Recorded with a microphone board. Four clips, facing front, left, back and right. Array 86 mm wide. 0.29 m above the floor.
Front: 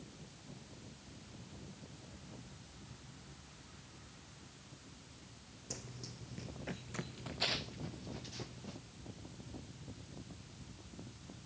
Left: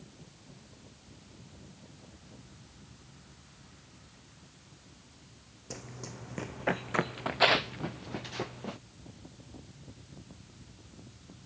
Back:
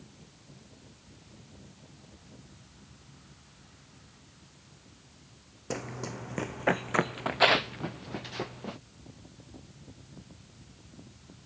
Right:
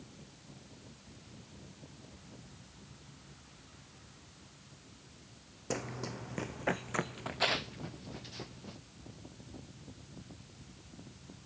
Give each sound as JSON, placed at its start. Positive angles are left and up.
{"t": 5.7, "sound": "running footsteps", "azimuth_deg": -145}